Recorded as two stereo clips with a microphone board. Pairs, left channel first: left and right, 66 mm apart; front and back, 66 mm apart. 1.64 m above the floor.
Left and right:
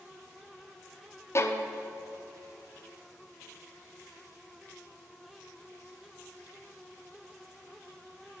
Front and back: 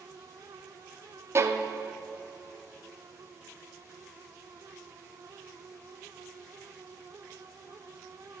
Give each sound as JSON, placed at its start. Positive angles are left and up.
{"t": 1.4, "sound": "a violin", "azimuth_deg": 135, "distance_m": 0.6}